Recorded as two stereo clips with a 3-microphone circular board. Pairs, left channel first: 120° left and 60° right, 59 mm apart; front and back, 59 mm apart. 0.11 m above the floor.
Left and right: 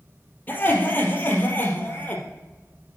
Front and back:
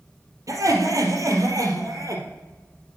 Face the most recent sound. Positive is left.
turn(degrees=175)